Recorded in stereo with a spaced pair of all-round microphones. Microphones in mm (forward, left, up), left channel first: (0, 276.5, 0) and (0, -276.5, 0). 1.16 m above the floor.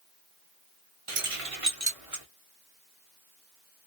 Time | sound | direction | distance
1.1 | keys jangling | 60° right (ahead or behind) | 0.8 m